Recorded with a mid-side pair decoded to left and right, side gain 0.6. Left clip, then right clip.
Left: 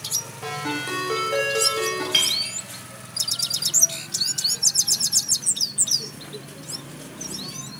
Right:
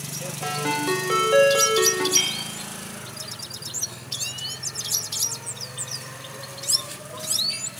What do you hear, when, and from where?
0.4 s a ringtone: 20° right, 2 m
2.1 s a clink: 70° left, 2 m